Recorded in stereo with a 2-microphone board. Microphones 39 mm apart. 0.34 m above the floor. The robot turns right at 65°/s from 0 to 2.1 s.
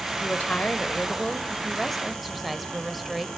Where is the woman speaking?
60° left, 1.1 m; by 3.3 s 175° right, 1.1 m.